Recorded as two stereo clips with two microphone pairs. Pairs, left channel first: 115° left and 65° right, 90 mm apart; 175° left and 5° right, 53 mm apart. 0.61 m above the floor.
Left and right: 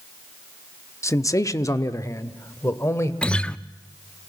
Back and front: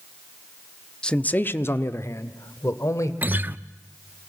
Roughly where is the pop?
No pop in this recording.